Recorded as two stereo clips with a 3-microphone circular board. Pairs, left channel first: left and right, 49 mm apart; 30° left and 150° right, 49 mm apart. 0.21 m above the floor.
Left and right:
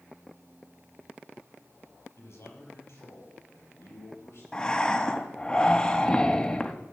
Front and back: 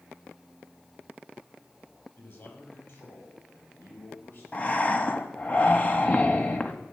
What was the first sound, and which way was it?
A man speaking, 60° left.